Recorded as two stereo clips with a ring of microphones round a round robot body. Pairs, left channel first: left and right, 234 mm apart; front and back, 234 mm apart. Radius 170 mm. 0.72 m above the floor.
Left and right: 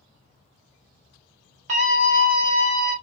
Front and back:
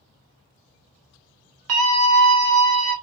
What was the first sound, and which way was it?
A scream, 155° right.